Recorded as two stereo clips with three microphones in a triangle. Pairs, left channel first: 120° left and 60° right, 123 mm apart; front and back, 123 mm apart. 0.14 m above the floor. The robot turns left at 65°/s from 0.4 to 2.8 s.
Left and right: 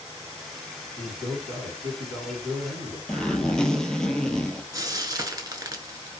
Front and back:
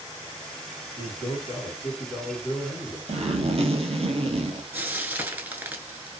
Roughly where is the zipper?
Behind right.